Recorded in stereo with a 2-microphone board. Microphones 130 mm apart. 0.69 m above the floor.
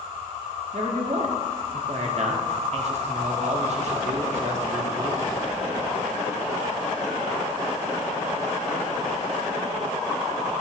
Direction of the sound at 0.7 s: 55° right (ahead or behind).